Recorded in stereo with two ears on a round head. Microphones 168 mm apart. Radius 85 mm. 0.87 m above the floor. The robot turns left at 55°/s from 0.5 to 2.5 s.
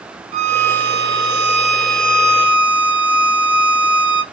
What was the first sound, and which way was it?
A violin, 40° right.